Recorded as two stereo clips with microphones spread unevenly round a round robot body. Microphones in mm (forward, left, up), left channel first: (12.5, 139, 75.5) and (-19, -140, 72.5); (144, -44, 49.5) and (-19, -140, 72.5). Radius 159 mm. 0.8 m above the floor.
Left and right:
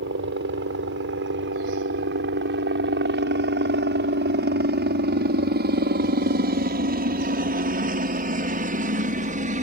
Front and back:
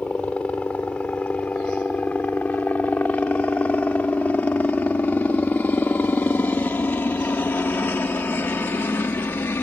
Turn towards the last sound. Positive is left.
turn(degrees=-40)